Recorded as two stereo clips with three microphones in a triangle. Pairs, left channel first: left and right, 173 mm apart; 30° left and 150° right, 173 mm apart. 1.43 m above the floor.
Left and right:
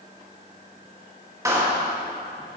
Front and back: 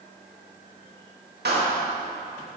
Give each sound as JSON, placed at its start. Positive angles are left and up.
{"t": 1.4, "sound": "a clap", "azimuth_deg": -165, "distance_m": 2.0}